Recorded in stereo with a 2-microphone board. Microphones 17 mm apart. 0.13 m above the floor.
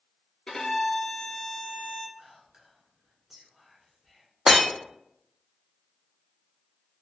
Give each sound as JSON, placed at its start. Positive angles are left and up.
{"t": 0.5, "sound": "a violin", "side_deg": 55, "distance_m": 0.6}
{"t": 2.2, "sound": "whispering", "side_deg": -25, "distance_m": 1.3}
{"t": 4.5, "sound": "breaking glass", "side_deg": -30, "distance_m": 0.8}